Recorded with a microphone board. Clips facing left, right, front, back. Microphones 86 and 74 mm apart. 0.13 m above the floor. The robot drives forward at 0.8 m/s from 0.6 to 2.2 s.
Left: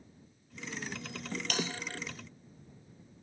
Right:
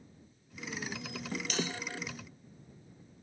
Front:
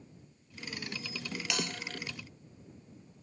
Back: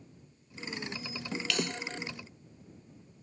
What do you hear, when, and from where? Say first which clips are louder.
1.5 s a bell: even, back 3 dB; 70° left, 2.0 m